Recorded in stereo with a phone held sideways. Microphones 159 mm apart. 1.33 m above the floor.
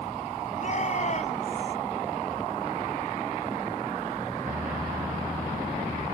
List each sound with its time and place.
0.6 s a shout: 50° left (ahead or behind)